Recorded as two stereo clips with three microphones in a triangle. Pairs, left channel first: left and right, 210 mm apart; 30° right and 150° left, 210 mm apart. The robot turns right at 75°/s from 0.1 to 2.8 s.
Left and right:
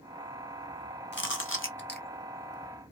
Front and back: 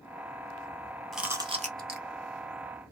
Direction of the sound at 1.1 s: 60° left.